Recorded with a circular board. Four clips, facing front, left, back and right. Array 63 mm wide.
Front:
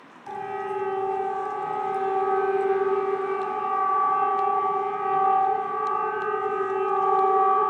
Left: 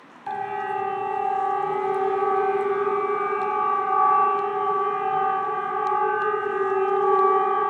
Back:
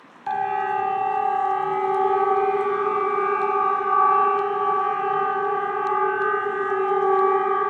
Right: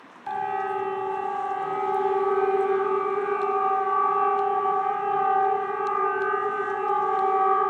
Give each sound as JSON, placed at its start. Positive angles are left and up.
{"t": 0.3, "sound": "a siren", "azimuth_deg": 170, "distance_m": 2.5}